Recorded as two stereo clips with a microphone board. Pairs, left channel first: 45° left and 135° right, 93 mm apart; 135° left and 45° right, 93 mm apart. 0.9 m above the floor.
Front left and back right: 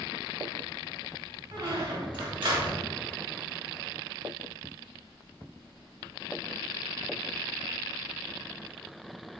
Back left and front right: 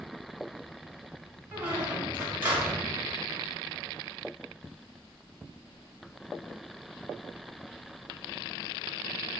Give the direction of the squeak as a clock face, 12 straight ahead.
4 o'clock.